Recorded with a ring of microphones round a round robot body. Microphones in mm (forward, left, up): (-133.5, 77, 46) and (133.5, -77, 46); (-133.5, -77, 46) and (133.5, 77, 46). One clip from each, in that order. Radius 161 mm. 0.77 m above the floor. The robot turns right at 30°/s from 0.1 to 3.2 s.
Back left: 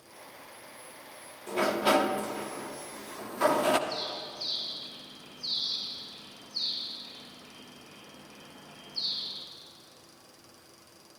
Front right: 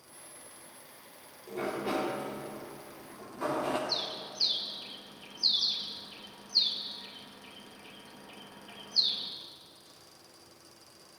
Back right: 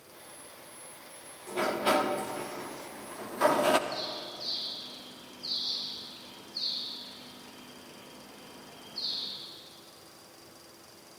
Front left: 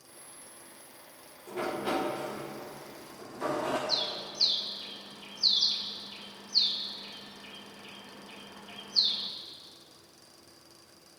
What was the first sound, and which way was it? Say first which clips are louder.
A sliding door: back left 8 dB, back right 5 dB; 140° left.